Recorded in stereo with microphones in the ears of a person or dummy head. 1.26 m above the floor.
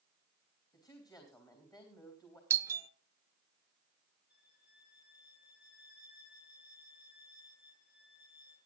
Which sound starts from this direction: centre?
A doorbell, at 2.5 s.